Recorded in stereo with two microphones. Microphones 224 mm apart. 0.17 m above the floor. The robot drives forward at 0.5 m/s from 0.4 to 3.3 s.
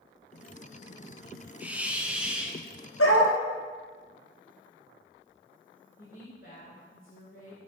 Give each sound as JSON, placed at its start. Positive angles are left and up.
{"t": 1.6, "sound": "a hiss", "side_deg": -5, "distance_m": 0.9}
{"t": 3.0, "sound": "a dog barking", "side_deg": 80, "distance_m": 2.0}
{"t": 6.0, "sound": "a woman speaking", "side_deg": 45, "distance_m": 2.0}